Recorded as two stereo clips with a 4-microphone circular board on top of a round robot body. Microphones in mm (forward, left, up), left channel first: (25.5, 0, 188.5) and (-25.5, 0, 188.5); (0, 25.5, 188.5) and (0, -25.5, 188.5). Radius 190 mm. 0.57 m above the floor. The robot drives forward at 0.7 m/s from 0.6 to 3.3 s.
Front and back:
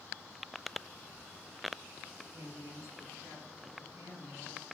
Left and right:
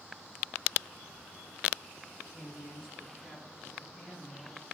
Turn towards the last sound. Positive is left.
turn(degrees=175)